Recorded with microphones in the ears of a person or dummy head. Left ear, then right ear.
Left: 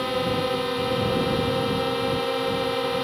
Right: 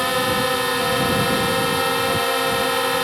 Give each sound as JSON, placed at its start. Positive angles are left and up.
{"t": 0.0, "sound": "a drone", "side_deg": -60}